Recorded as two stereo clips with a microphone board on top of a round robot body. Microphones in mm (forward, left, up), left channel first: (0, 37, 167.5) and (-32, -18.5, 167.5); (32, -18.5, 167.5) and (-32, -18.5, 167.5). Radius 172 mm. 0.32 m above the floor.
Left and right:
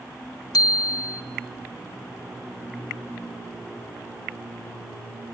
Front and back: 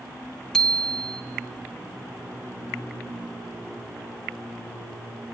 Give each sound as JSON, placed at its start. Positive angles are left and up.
{"t": 0.5, "sound": "a bicycle bell", "azimuth_deg": 80, "distance_m": 2.5}